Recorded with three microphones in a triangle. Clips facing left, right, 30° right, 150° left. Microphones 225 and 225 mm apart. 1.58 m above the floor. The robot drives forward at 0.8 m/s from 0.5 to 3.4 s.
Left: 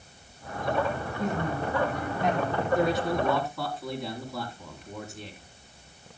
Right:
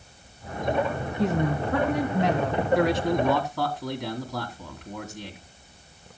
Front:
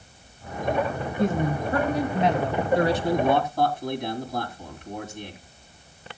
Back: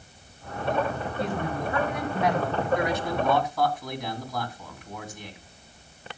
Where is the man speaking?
85° right, 3 m; by 5.4 s 95° right, 3 m.